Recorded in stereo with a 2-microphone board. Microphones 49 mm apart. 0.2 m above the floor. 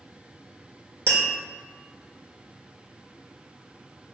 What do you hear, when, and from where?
1.1 s tapping: 80° right, 1.5 m